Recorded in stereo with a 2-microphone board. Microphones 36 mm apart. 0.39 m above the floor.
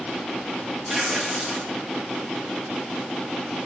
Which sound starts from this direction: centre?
Tearing paper, at 0.9 s.